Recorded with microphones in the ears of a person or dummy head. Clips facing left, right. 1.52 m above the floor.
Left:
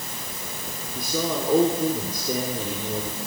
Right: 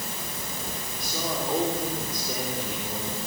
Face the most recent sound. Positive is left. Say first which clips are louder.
# left 6 dB
turn(degrees=75)  # may be behind; listen again after turning